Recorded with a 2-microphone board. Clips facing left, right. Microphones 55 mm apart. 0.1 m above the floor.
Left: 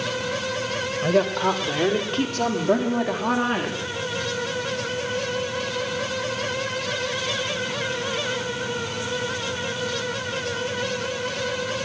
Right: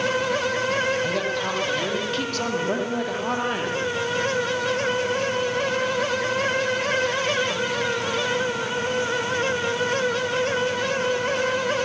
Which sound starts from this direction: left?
A woman speaking, at 1.0 s.